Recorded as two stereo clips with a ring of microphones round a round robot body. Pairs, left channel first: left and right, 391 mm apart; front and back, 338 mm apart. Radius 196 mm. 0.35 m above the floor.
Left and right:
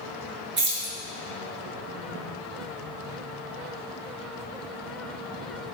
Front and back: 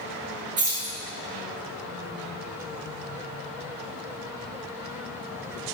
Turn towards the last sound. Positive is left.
turn(degrees=-130)